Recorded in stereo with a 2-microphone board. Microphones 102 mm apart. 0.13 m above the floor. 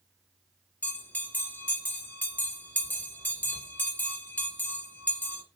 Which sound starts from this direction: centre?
A bell, at 0.8 s.